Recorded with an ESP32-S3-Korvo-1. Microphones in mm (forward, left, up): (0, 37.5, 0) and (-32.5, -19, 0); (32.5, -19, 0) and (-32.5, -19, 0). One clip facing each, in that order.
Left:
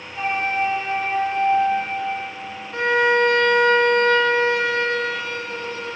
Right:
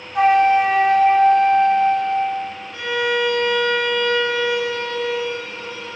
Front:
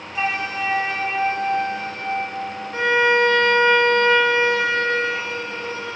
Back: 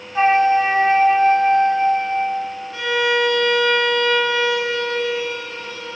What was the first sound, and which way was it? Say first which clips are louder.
A flute: right 9 dB, back 10 dB; 125° right.